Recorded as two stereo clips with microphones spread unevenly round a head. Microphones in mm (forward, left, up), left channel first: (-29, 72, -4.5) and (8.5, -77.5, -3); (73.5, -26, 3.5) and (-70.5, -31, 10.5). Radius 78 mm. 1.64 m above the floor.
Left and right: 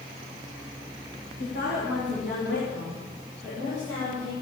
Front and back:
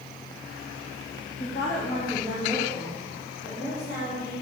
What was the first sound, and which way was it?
A woman speaking, 75° left.